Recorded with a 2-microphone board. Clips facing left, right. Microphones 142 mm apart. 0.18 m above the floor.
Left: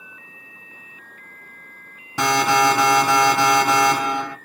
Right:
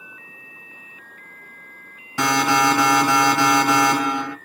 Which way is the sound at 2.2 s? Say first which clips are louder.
Left 1 dB; 15° left (ahead or behind).